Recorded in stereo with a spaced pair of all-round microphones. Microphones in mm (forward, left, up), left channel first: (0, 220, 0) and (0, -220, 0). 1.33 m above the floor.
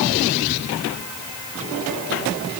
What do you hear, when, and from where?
Only background noise.